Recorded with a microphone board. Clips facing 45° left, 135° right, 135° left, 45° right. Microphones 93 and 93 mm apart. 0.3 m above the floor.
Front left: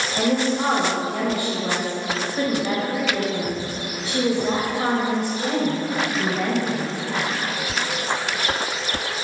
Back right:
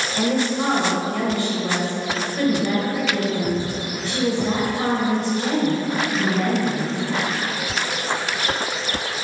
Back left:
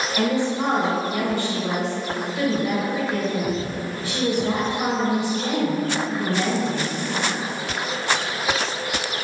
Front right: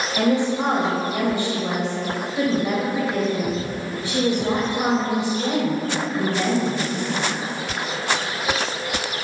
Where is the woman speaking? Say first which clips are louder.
Even, front right 3 dB; 5° right, 1.3 m.